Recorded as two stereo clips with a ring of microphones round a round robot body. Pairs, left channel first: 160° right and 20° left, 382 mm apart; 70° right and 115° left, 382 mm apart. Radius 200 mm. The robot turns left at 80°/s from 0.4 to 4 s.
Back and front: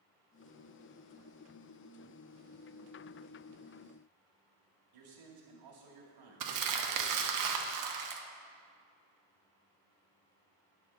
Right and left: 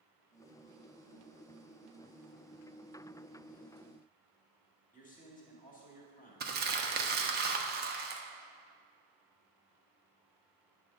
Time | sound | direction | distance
4.9 | a man speaking | straight ahead | 1.9 m
6.4 | crumpling | 50° left | 0.9 m